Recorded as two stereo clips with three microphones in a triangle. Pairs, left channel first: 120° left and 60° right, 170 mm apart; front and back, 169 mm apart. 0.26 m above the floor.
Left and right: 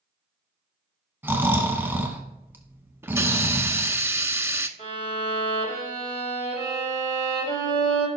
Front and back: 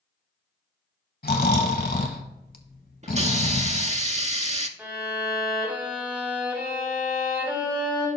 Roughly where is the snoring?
Ahead.